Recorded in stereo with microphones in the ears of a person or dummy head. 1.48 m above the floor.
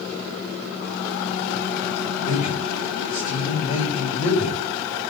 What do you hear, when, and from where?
2.2 s a man speaking: 45° left (ahead or behind), 6.5 m